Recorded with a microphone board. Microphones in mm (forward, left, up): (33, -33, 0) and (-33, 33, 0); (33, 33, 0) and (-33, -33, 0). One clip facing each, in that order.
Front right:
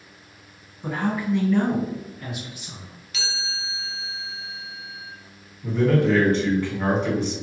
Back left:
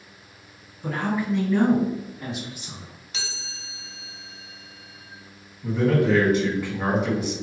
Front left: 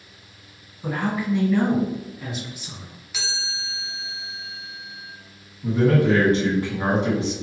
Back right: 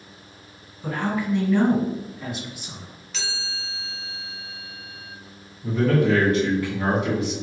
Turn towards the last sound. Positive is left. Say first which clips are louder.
# front right 1 dB, front left 2 dB
turn(degrees=55)